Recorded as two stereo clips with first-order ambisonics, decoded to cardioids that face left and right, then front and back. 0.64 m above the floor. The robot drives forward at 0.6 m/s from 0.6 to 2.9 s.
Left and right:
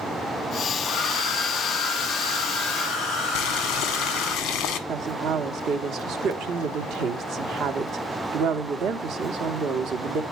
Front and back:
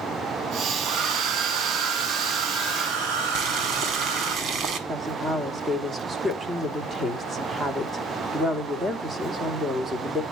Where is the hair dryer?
155° left, 4.5 m; by 4.3 s 160° left, 5.5 m.